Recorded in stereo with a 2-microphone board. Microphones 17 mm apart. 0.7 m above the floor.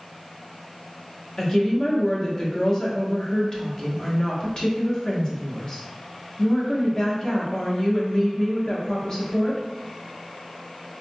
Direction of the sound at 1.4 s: 35° left (ahead or behind).